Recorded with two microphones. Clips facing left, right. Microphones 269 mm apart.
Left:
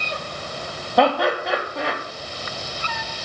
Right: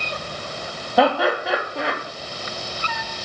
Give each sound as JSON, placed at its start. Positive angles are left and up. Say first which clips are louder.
{"t": 1.0, "sound": "laughter", "louder": "even", "side_deg": 0, "distance_m": 4.0}